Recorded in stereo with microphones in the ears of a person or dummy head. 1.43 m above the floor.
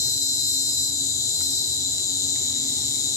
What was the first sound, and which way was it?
An insect, 20° left (ahead or behind).